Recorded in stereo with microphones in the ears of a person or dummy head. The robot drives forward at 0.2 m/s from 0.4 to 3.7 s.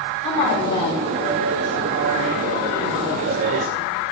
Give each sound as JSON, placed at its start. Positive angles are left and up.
{"t": 0.2, "sound": "a woman speaking", "side_deg": 20, "distance_m": 3.0}